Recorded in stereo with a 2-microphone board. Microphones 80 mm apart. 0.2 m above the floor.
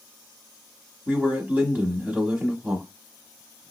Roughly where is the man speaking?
Right.